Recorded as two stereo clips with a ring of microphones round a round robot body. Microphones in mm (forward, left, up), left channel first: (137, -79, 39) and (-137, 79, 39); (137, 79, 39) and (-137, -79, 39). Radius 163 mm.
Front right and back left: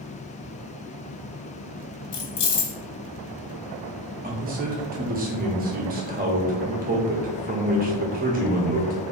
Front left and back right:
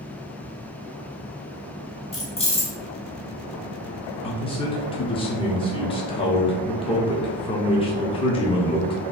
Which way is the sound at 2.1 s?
40° right.